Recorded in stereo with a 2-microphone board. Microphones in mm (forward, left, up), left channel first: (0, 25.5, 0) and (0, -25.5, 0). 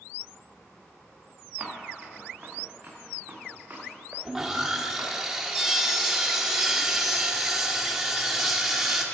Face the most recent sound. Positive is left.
turn(degrees=-5)  # may be behind; listen again after turning